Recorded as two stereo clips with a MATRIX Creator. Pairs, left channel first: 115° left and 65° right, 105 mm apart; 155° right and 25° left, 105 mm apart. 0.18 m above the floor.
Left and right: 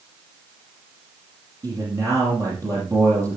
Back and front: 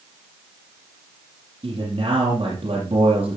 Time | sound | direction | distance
1.6 | a man speaking | 10° right | 5.5 m